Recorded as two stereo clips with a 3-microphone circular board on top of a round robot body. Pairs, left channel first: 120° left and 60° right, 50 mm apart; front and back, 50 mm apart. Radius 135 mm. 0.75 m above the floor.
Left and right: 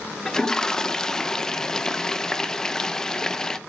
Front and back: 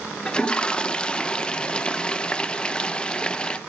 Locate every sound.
0.2 s a toilet flushing: 50° left, 0.5 m